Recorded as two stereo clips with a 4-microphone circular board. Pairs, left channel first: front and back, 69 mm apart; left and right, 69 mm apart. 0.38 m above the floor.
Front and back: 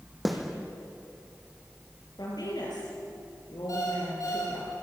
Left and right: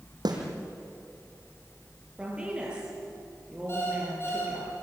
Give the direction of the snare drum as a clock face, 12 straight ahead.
3 o'clock.